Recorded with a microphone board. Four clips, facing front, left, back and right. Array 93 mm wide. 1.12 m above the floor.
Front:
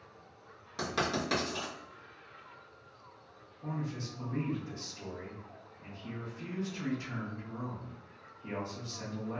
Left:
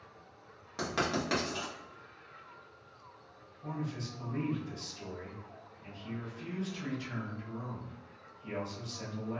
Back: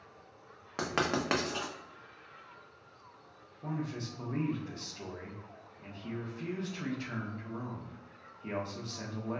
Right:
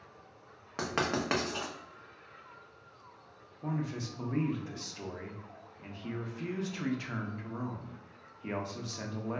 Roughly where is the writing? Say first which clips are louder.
Right 1 dB, back 2 dB; behind right.